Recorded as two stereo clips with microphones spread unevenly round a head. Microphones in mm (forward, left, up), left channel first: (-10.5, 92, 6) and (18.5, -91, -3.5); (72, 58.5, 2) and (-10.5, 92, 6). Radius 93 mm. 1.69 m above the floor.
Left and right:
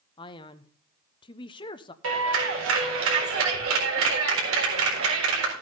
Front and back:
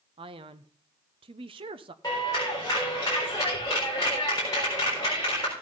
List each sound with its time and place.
0.2 s a man speaking: 160° left, 0.9 m
2.0 s a clap: 95° right, 4 m